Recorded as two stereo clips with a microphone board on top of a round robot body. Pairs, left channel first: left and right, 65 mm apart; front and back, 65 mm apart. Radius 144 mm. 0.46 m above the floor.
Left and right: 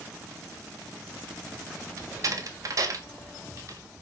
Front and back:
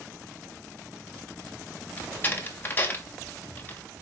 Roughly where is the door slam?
Ahead right.